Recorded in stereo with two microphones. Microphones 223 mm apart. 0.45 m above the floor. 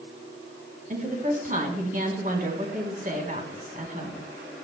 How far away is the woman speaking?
About 4 m.